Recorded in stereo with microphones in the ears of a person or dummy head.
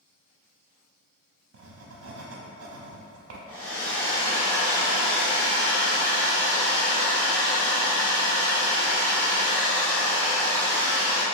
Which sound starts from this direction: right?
Writing, at 1.5 s.